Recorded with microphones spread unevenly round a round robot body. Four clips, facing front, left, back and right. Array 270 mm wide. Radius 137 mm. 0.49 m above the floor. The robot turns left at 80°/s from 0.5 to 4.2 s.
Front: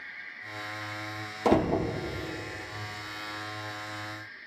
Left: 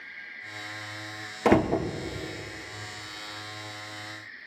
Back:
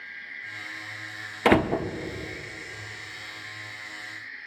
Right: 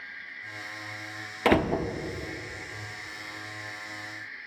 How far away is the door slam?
About 0.6 m.